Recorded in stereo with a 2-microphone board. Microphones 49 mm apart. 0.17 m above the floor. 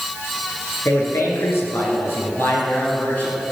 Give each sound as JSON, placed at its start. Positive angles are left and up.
{"t": 0.8, "sound": "a man speaking", "side_deg": 60, "distance_m": 2.5}